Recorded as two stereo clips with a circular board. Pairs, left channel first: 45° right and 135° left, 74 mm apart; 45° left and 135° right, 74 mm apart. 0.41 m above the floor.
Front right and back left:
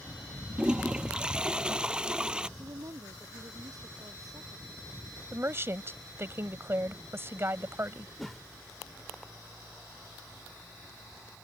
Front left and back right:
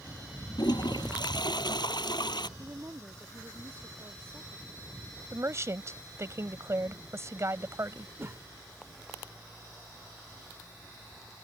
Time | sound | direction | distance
0.6 | a toilet flushing | 55° left | ?
2.6 | a woman speaking | 170° left | ?
5.3 | a woman speaking | 175° right | ?
8.2 | a whoosh | 135° right | ?